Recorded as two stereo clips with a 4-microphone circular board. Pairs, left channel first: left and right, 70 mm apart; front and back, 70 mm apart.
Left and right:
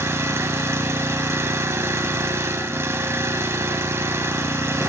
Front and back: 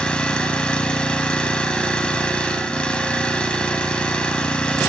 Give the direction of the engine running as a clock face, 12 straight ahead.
2 o'clock.